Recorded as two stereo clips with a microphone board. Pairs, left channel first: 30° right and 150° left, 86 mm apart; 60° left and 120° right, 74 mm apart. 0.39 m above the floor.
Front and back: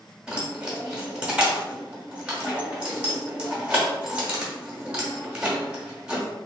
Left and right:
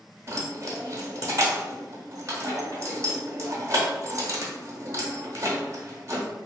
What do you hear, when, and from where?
0.3 s keys jangling: 140° right, 0.8 m